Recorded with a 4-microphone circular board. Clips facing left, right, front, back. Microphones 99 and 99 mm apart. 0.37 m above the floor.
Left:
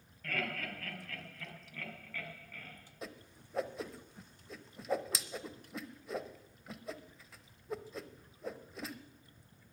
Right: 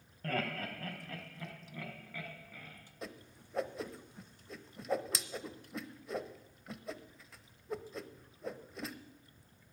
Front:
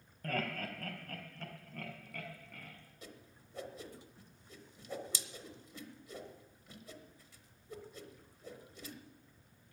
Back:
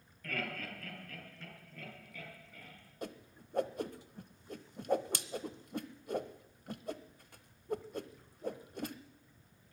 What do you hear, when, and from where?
0.2 s laughter: 45° right, 3 m; by 2.8 s 10° right, 4.5 m
3.0 s a whoosh: straight behind, 0.8 m